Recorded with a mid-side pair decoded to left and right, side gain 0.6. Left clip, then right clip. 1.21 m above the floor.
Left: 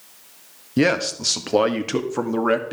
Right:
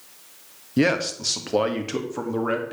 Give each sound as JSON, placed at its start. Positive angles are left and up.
{"t": 0.8, "sound": "a man speaking", "azimuth_deg": 10, "distance_m": 1.6}